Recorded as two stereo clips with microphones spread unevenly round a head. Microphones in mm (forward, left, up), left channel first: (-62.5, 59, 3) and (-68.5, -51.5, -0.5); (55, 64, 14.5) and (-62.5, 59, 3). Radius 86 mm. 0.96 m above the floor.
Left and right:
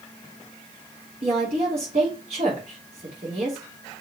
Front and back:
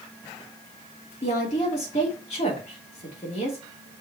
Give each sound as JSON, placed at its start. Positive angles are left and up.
{"t": 1.2, "sound": "a woman speaking", "azimuth_deg": -45, "distance_m": 3.0}